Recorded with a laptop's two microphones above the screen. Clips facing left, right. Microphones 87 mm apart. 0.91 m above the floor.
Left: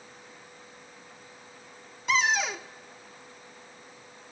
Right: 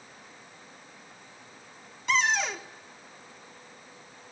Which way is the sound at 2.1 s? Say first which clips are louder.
Even; 5° left (ahead or behind).